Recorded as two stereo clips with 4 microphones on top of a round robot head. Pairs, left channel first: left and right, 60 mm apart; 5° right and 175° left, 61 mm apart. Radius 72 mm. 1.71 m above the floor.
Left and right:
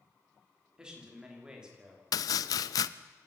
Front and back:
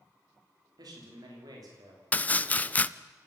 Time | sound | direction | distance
0.8 | a man speaking | 165° right | 5.5 m
2.1 | chopping | 60° left | 0.6 m